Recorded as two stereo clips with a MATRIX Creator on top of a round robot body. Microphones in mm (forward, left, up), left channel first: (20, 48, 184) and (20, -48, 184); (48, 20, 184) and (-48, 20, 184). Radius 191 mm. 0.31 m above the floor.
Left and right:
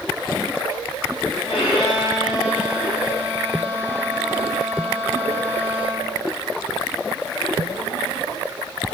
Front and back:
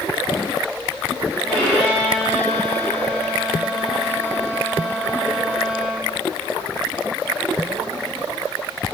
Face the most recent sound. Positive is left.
turn(degrees=80)